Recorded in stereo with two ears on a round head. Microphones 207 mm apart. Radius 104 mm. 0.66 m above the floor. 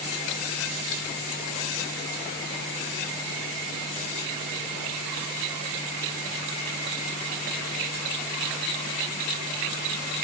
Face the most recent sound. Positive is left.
No sound to turn to.